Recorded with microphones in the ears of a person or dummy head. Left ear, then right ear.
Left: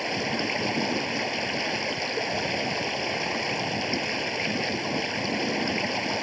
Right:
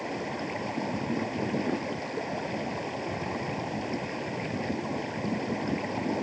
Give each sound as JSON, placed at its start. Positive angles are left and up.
{"t": 0.0, "sound": "running water", "side_deg": 70}